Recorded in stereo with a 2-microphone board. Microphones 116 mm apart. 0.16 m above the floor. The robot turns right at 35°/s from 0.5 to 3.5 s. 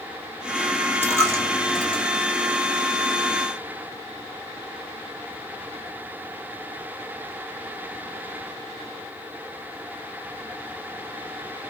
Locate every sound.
1.0 s a dropped coin: 20° left (ahead or behind), 1.7 m; by 2.0 s 50° left (ahead or behind), 1.7 m